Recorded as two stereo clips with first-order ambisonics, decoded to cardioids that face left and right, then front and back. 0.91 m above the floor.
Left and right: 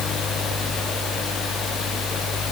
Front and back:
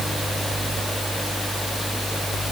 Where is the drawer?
No drawer in this recording.